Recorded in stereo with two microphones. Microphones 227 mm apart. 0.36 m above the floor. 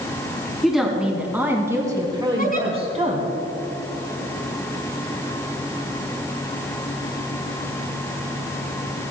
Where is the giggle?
40° left (ahead or behind), 3.5 m.